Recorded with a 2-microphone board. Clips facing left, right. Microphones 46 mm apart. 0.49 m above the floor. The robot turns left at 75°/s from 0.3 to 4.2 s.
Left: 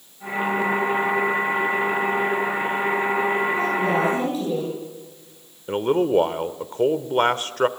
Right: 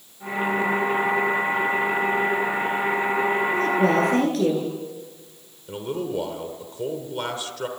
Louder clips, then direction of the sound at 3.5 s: Right 1 dB; 55° right.